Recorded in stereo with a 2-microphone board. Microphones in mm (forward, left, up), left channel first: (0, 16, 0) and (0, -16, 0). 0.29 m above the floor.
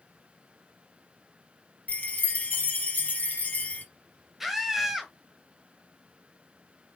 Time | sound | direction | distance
1.9 | a chime | 55° left (ahead or behind) | 1.0 m
4.4 | a scream | 10° right (ahead or behind) | 1.3 m